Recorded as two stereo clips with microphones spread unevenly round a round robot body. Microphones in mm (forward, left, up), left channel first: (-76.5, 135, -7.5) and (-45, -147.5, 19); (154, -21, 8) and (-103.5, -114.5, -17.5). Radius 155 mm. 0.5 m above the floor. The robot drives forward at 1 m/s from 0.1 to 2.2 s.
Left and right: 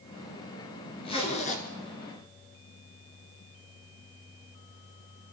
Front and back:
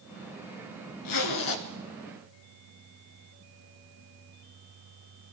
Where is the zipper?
20° left, 2 m; by 1.6 s 30° left, 1.6 m.